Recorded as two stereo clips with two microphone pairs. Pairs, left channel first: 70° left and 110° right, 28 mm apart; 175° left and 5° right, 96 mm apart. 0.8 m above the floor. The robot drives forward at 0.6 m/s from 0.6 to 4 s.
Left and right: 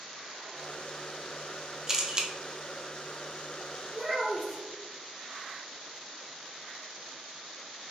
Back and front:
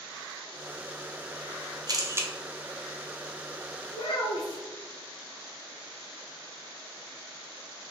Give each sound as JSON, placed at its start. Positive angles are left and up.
{"t": 1.9, "sound": "a camera shutter", "azimuth_deg": -45, "distance_m": 0.6}
{"t": 3.9, "sound": "a child speaking", "azimuth_deg": 155, "distance_m": 1.1}